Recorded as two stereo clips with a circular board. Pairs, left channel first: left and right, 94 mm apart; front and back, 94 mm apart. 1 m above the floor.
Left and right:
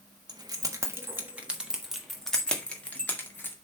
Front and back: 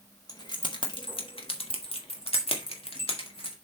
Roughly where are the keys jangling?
Ahead right.